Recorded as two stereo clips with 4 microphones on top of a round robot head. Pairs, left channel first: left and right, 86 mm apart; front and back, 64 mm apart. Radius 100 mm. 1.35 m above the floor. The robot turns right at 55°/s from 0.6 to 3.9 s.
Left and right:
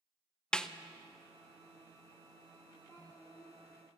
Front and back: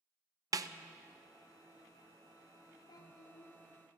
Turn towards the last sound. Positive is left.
turn(degrees=35)